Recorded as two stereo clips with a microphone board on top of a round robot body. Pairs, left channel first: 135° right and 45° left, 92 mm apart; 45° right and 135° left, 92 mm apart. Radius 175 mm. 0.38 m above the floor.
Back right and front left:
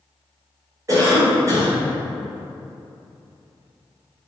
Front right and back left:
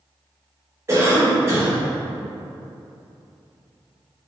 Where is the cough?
85° left, 1.8 m.